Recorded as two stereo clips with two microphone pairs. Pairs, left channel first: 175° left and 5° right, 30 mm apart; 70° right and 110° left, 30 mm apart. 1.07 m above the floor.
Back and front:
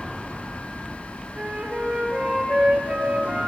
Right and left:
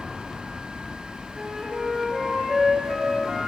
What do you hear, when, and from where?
1.4 s a flute: 35° left, 0.7 m